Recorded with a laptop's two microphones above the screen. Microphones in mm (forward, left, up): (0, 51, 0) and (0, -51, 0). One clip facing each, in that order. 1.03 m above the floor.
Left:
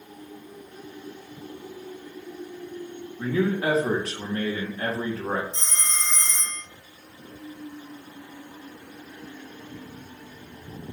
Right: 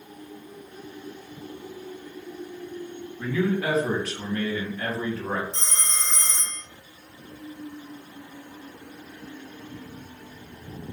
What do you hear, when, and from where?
3.2 s a man speaking: 30° left (ahead or behind), 1.1 m
5.5 s a phone ringing: 70° right (ahead or behind), 0.8 m